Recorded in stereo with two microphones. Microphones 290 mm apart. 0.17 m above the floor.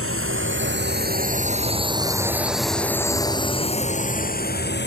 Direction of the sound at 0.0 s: 50° right (ahead or behind).